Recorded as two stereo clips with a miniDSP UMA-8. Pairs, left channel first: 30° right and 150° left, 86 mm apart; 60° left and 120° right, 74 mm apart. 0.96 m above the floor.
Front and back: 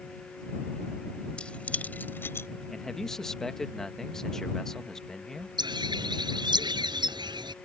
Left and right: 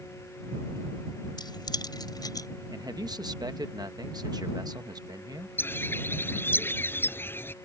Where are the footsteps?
No footsteps in this recording.